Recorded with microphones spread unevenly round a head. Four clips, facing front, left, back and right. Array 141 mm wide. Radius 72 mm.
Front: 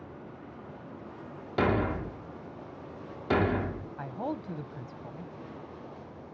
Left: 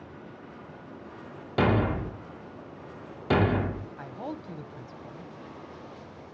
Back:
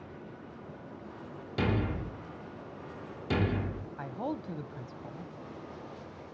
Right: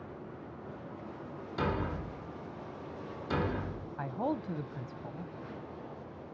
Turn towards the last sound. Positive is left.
turn(degrees=10)